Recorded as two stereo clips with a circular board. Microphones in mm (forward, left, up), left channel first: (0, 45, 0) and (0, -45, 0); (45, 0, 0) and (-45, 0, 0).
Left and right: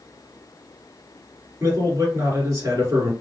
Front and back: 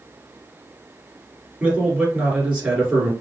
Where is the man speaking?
115° right, 1.8 m.